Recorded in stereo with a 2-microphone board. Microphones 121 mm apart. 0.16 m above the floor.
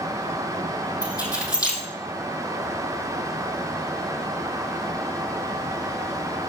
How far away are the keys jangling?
About 5 m.